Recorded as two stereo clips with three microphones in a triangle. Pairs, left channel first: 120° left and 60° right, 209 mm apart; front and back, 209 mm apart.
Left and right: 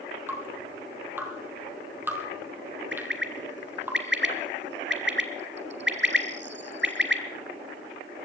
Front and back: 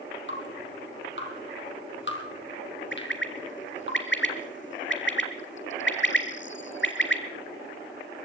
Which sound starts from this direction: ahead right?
A bird, at 2.9 s.